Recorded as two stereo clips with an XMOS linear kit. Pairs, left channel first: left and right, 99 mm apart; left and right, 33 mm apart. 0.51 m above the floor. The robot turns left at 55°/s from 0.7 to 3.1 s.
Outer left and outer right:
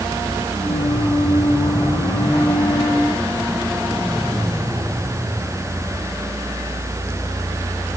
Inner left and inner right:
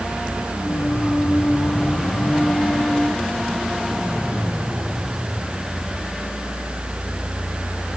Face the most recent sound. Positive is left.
No sound to turn to.